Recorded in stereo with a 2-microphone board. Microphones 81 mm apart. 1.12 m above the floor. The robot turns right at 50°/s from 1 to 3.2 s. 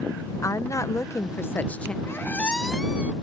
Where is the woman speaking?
115° left; by 1.9 s 165° left.